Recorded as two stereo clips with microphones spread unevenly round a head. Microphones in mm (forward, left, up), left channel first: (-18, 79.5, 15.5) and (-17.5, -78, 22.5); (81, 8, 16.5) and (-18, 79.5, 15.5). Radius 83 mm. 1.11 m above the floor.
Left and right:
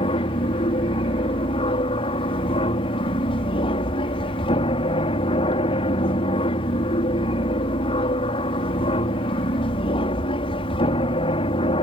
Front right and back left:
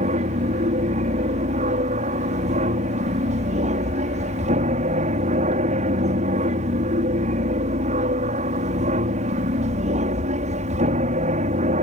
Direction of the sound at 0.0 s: 140° left.